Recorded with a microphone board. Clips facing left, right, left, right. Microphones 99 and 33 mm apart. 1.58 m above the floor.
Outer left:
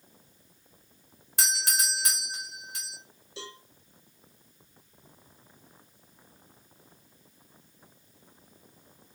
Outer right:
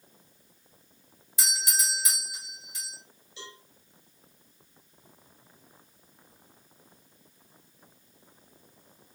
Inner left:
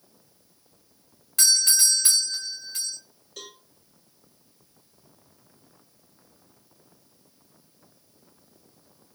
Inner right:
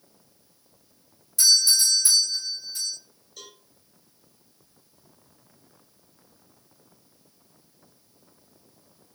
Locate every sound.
1.4 s a doorbell: 60° left (ahead or behind), 1.5 m
3.4 s a cowbell: 80° left, 1.8 m